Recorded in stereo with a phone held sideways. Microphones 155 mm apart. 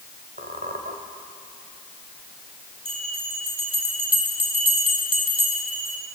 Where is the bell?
35° right (ahead or behind), 4 m.